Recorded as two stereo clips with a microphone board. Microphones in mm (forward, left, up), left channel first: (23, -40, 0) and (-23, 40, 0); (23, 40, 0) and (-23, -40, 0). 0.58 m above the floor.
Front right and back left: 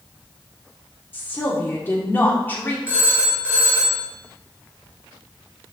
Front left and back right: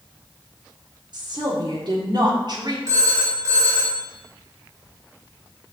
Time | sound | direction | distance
1.1 | a woman speaking | 120° right | 1.3 m
2.9 | a phone ringing | 170° right | 1.8 m